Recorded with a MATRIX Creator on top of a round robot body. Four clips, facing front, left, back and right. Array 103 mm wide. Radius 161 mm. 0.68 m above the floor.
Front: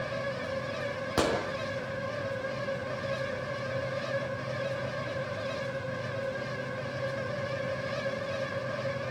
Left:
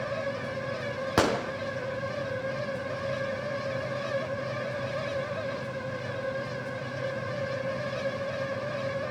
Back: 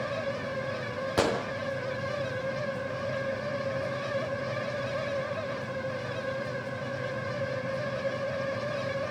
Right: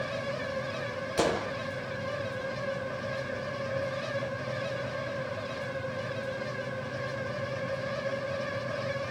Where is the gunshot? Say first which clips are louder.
Left 2 dB, back 1 dB; 85° left, 4.5 m.